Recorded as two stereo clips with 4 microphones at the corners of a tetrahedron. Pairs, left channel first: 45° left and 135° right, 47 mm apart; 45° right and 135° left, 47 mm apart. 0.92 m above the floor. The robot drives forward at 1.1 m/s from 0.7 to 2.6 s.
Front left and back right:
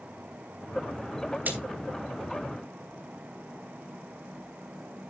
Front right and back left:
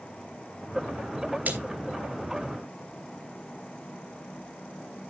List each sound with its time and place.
1.4 s a splash: straight behind, 2.5 m